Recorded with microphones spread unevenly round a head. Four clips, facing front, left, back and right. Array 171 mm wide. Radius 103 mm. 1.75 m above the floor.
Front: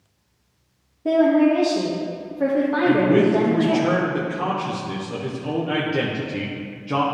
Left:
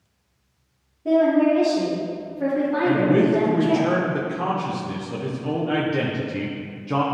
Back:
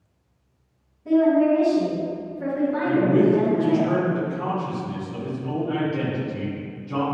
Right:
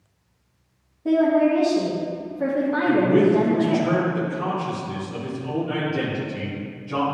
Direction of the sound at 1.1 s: 10° right.